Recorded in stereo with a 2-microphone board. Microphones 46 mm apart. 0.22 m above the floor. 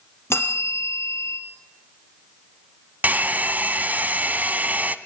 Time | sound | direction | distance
0.3 | a bell | 75° left (ahead or behind) | 3 m
3.0 | a hair dryer | 40° right (ahead or behind) | 0.7 m